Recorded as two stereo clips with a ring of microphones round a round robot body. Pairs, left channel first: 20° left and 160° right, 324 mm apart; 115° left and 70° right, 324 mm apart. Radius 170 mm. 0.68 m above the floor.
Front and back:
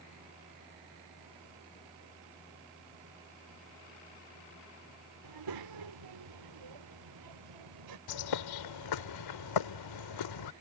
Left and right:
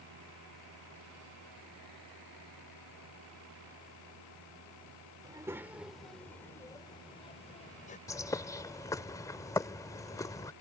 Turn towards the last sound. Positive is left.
turn(degrees=30)